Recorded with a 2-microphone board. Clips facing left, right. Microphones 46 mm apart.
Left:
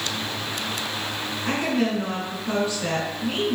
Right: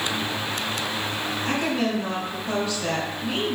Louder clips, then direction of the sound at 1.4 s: Left 2 dB; 35° left (ahead or behind).